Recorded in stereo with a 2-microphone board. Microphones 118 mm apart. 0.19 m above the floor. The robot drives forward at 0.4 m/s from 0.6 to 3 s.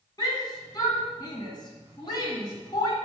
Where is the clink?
I don't hear a clink.